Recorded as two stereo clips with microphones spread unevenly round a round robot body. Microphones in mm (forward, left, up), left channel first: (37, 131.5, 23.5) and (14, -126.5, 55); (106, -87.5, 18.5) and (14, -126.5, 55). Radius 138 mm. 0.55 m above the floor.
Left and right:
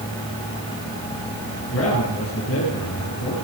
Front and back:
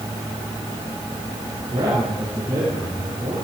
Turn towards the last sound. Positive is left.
turn(degrees=125)